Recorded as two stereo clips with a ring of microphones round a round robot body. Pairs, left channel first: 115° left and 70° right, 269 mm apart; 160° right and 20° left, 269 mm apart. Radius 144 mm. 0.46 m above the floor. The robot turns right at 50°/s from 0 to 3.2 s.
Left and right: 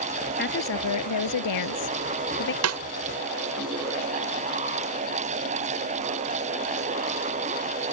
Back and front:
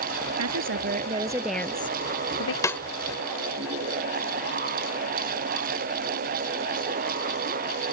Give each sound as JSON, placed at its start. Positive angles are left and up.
{"t": 0.4, "sound": "a woman speaking", "azimuth_deg": 55}
{"t": 2.6, "sound": "a snare drum", "azimuth_deg": -80}